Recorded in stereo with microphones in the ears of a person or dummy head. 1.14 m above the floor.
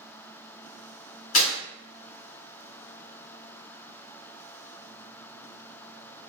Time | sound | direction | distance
1.3 | tearing paper | 50° left (ahead or behind) | 1.4 m